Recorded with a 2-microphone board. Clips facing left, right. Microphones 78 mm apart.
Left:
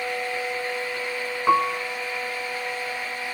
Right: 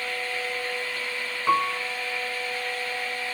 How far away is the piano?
About 0.6 m.